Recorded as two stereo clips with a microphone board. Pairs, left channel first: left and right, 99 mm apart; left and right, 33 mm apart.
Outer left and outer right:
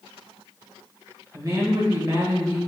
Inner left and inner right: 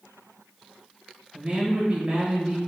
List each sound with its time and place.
1.3 s a woman speaking: 40° right (ahead or behind), 0.8 m